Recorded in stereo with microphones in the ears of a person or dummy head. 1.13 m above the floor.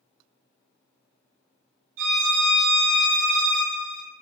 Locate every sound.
2.0 s a violin: 45° right (ahead or behind), 1.8 m